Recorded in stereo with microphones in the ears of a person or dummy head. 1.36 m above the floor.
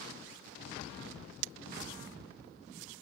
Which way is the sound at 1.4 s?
60° right (ahead or behind).